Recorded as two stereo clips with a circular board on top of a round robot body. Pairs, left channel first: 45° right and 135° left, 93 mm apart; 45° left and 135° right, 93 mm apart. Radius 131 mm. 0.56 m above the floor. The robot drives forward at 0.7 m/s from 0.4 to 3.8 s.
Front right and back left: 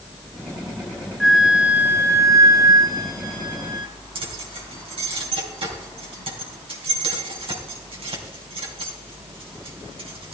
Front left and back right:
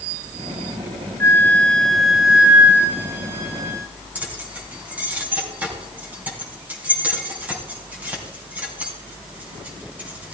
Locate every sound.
1.2 s a flute: 45° left, 1.0 m; by 3.9 s 170° left, 1.8 m
4.2 s keys jangling: 150° left, 3.5 m